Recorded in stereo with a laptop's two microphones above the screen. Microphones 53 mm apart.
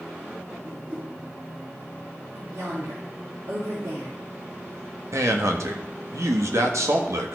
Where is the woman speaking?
75° right (ahead or behind), 3 m.